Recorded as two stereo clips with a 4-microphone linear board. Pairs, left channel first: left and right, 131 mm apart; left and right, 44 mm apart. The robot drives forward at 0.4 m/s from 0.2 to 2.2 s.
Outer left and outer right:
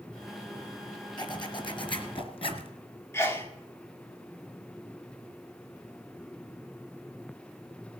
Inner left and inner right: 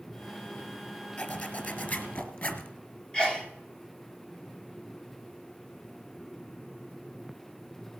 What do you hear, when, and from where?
1.2 s a zipper: 35° left (ahead or behind), 1.8 m; by 2.7 s 45° left (ahead or behind), 1.5 m
3.1 s a sneeze: 20° left (ahead or behind), 0.9 m